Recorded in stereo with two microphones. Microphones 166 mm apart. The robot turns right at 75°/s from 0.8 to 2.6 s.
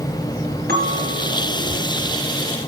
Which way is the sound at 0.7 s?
80° right.